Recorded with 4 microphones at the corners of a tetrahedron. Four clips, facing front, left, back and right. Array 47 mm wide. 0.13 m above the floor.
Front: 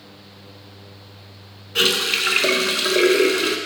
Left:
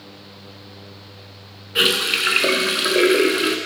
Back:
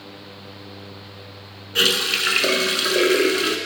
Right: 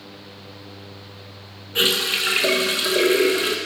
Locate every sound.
1.8 s a running tap: 85° left, 0.7 m